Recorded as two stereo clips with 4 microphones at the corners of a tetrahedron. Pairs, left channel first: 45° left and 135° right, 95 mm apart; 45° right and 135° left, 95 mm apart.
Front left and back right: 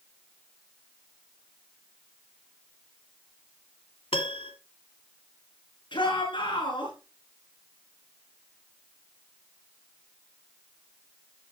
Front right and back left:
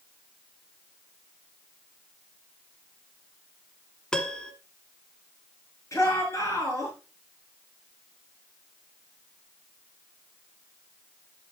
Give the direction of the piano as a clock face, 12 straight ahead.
11 o'clock.